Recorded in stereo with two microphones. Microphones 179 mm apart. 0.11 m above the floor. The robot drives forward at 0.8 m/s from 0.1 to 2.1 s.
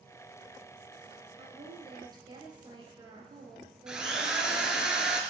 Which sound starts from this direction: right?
A woman speaking, at 1.4 s.